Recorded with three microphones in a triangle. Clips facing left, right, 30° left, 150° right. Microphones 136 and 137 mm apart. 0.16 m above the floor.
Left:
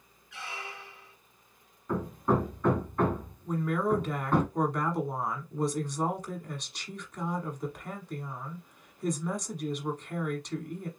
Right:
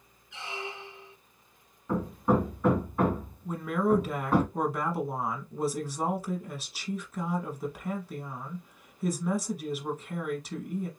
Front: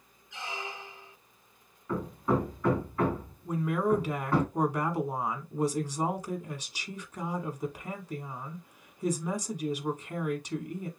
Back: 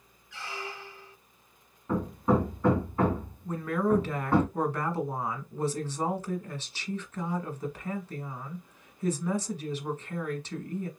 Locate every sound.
0.3 s a squeak: 35° right, 0.6 m
1.9 s hammering: 160° right, 1.3 m
3.5 s a woman speaking: 15° right, 1.1 m